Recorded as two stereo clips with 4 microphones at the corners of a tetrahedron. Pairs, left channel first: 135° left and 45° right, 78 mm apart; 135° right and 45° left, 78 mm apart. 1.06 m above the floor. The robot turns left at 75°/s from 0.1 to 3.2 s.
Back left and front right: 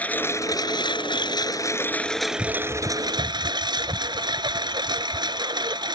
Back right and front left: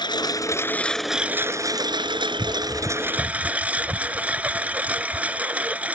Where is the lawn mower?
155° right; by 6.0 s 25° right.